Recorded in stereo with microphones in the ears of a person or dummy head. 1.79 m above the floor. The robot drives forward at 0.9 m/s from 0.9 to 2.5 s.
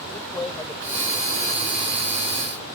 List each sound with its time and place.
0.1 s a man speaking: 15° left (ahead or behind)